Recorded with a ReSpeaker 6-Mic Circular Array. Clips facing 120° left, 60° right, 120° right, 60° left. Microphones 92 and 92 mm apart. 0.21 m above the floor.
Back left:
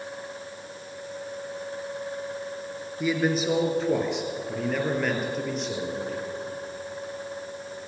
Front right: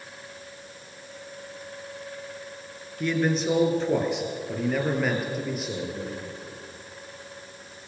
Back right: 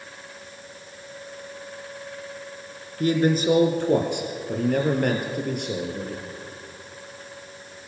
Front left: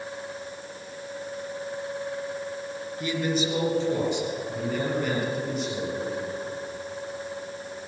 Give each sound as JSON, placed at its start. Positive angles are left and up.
{"t": 3.0, "sound": "a man speaking", "azimuth_deg": -155, "distance_m": 3.0}